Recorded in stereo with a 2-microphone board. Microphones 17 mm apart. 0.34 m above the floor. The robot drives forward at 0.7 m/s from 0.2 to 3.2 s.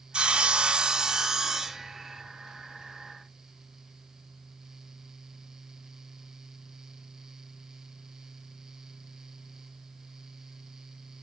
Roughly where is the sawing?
Right.